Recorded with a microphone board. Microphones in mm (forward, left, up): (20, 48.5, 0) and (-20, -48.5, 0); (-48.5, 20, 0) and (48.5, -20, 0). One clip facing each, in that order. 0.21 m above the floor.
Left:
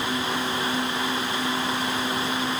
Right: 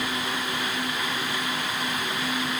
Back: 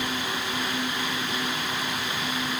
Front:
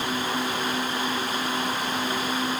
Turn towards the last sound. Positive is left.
No sound to turn to.